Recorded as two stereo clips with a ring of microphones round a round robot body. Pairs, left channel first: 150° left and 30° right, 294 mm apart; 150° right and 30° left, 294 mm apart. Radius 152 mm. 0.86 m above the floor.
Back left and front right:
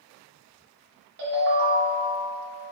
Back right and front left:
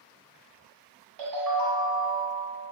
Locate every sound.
1.2 s a ringtone: 25° left, 1.5 m